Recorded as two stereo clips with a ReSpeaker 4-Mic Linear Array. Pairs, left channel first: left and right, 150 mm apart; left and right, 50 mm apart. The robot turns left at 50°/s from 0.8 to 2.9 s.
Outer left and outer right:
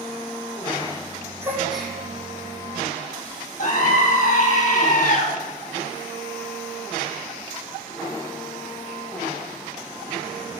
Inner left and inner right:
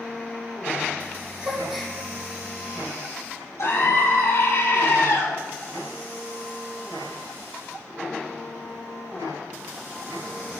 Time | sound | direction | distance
1.4 | a gasp | 20° right (ahead or behind) | 1.9 m
3.6 | a scream | 55° left (ahead or behind) | 3.5 m